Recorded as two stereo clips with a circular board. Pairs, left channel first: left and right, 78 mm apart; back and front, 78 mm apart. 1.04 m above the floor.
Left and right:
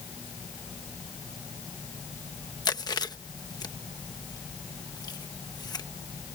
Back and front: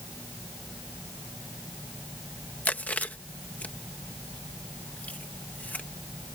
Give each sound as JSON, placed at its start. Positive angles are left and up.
{"t": 2.6, "sound": "chewing", "azimuth_deg": 110}